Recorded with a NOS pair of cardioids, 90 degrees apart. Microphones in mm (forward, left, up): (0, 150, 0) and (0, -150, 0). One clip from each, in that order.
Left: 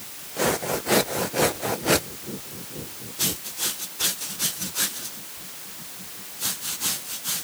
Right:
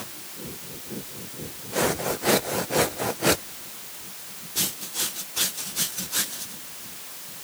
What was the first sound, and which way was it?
Only background noise.